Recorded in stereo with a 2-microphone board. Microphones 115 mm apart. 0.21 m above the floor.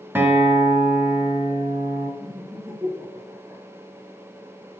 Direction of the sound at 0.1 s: 15° right (ahead or behind).